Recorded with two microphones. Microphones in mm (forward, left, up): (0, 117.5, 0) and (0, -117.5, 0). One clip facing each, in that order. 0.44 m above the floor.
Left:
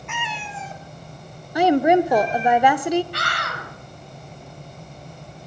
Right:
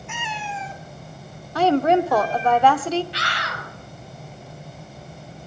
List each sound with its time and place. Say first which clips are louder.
0.1 s a cat meowing: right 1 dB; 70° left (ahead or behind), 0.9 m; by 2.5 s 20° left (ahead or behind), 2.5 m
1.6 s a woman speaking: left 2 dB; 15° left (ahead or behind), 0.8 m
3.1 s a scream: left 1 dB; 55° left (ahead or behind), 3.5 m